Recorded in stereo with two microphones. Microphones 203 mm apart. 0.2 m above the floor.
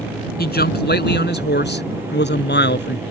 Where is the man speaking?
50° left (ahead or behind); by 3.0 s 60° left (ahead or behind).